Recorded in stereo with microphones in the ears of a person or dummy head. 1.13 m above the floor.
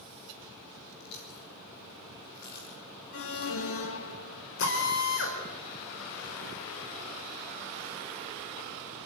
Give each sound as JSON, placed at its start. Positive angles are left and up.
{"t": 1.0, "sound": "chewing", "side_deg": 60, "distance_m": 4.5}
{"t": 3.1, "sound": "an alarm", "side_deg": 70, "distance_m": 1.7}
{"t": 4.6, "sound": "a drill", "side_deg": 65, "distance_m": 4.0}